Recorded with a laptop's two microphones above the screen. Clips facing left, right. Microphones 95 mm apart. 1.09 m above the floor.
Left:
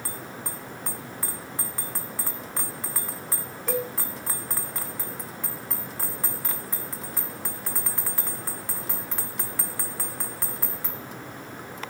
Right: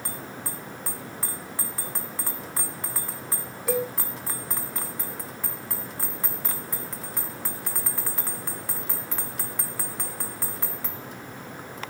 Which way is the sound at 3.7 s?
5° right (ahead or behind).